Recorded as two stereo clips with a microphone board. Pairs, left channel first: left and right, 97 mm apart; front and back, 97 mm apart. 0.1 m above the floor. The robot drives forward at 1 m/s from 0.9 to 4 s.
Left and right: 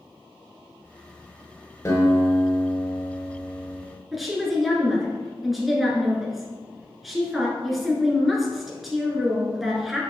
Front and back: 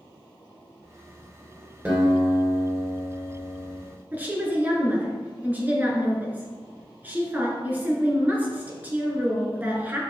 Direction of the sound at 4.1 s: 175° right.